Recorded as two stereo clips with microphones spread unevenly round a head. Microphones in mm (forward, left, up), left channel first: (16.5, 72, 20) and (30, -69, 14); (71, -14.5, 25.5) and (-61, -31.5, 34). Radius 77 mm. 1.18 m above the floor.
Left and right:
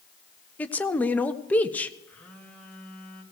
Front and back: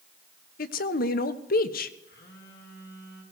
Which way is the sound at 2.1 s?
15° left.